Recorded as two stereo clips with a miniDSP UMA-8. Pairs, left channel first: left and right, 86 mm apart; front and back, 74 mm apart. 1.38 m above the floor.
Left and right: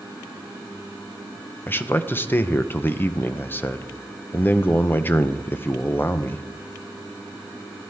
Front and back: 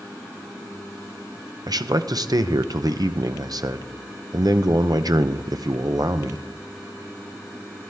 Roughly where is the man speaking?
Behind left.